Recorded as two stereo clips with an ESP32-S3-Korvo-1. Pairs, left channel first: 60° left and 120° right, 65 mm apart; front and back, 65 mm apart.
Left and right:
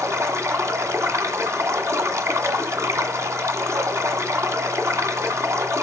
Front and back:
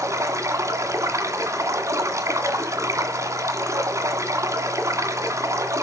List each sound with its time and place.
0.0 s running water: 155° right, 1.8 m